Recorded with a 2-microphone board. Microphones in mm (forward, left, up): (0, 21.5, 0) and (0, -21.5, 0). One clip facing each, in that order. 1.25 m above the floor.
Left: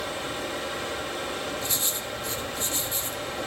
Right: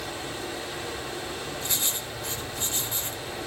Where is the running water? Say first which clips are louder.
Left 3 dB; 55° left (ahead or behind), 5.5 m.